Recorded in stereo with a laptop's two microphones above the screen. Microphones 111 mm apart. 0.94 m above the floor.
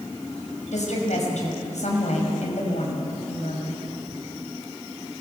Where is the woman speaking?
80° left, 6 m.